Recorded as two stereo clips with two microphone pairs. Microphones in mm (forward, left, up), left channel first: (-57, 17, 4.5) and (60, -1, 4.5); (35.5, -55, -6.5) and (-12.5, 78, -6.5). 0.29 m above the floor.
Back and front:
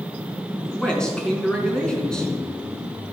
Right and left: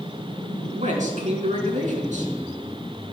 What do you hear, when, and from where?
0.7 s a man speaking: 85° left, 4 m